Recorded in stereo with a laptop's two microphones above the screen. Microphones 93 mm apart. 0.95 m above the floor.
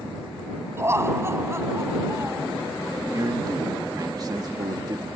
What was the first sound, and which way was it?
Laughter, 25° right (ahead or behind).